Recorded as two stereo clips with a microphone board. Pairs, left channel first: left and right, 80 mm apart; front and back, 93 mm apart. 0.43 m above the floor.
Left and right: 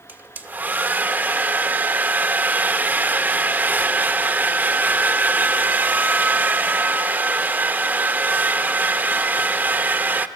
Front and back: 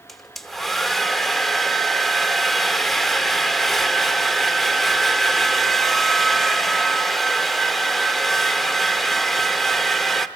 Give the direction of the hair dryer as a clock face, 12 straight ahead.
3 o'clock.